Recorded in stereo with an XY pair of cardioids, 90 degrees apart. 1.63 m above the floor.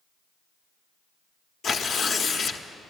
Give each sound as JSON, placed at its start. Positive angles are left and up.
{"t": 1.6, "sound": "tearing paper", "azimuth_deg": 65, "distance_m": 1.0}